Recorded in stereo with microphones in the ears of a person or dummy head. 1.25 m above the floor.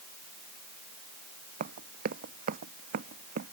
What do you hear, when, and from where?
1.6 s running footsteps: 50° right (ahead or behind)